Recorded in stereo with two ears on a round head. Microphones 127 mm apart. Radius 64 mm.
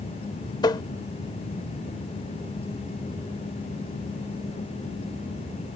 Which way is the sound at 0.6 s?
30° left (ahead or behind).